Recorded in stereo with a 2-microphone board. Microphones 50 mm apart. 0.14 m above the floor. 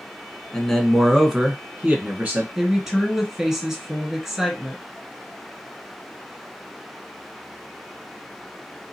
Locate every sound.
0.5 s a man speaking: 10° left (ahead or behind), 1.1 m; by 2.5 s 30° right (ahead or behind), 1.2 m
2.5 s a woman speaking: 10° right (ahead or behind), 2 m